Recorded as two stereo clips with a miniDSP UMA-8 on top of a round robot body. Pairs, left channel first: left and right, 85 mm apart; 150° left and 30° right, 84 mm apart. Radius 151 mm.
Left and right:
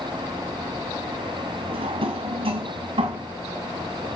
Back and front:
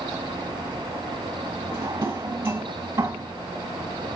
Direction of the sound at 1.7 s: 90° right.